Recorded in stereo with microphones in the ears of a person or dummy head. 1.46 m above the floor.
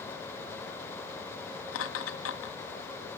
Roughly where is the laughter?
Left.